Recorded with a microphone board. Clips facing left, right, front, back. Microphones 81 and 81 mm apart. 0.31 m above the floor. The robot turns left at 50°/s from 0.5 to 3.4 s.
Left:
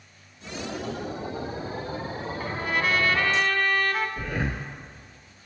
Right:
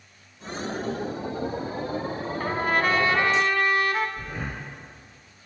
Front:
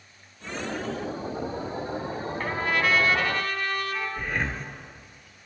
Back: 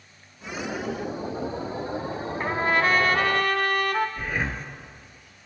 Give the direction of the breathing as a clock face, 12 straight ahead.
9 o'clock.